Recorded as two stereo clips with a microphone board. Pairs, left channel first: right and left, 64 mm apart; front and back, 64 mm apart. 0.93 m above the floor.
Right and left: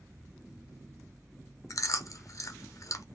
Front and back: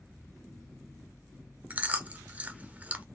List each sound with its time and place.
1.7 s chewing: 115° right, 0.6 m